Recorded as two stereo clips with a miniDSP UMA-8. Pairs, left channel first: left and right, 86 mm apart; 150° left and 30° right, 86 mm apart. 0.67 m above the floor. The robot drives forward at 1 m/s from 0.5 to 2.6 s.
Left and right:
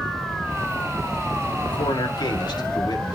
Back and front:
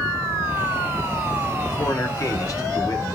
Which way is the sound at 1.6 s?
95° left.